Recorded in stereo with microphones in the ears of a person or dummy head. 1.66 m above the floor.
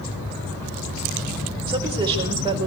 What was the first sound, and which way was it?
A woman speaking, 20° right (ahead or behind).